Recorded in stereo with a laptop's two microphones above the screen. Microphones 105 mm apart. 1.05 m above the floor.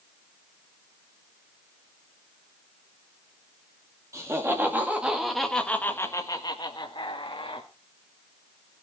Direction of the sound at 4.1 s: 30° right (ahead or behind).